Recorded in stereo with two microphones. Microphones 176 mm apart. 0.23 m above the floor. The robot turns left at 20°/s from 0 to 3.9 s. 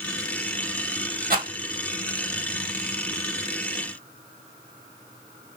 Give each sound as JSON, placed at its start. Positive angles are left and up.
{"t": 1.3, "sound": "a rattle", "side_deg": -55, "distance_m": 1.5}